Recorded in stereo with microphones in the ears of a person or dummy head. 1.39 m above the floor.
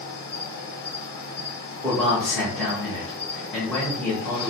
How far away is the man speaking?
About 1.0 m.